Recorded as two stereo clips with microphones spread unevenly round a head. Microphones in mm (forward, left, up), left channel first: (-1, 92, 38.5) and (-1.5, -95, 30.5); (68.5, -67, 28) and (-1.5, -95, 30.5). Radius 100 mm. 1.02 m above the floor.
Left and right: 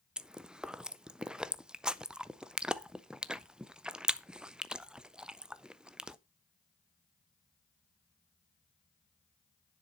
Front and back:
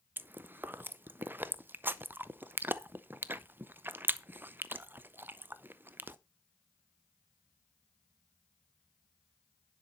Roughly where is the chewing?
Behind.